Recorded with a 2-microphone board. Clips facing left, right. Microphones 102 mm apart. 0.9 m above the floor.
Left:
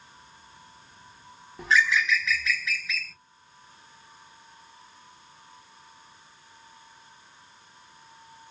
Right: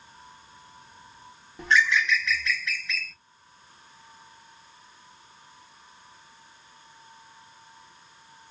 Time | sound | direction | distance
1.6 | a bird | centre (ahead or behind) | 0.6 m